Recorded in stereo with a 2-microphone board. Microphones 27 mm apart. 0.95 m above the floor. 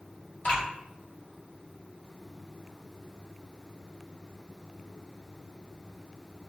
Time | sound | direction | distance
0.4 | dripping | 80° left | 1.6 m